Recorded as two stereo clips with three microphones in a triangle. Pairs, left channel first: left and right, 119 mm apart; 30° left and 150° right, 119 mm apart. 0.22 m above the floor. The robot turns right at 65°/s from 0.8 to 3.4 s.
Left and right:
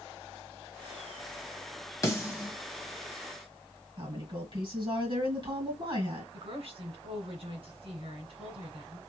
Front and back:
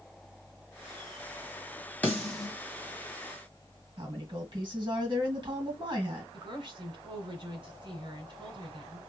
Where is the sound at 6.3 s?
110° right, 2 m.